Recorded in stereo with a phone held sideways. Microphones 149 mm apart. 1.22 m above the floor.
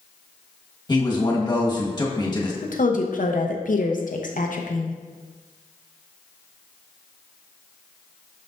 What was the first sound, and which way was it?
A man speaking, 30° left (ahead or behind).